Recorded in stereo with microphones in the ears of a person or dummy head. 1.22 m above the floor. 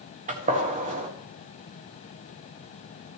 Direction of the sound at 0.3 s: 35° right (ahead or behind).